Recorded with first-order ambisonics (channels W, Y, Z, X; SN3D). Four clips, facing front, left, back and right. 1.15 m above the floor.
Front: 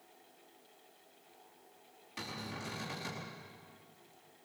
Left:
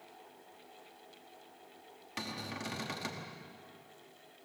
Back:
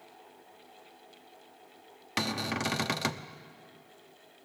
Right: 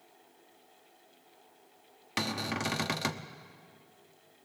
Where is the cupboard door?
145° right, 0.9 m.